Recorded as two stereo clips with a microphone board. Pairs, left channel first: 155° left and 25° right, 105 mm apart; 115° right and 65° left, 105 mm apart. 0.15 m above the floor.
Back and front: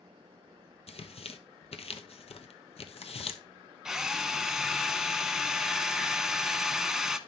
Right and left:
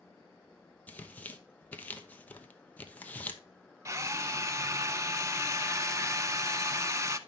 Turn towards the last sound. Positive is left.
turn(degrees=60)